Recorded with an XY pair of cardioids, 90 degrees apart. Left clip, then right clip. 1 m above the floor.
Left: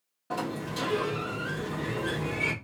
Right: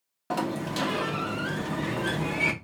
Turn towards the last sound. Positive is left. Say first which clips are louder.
# right 3 dB
turn(degrees=-70)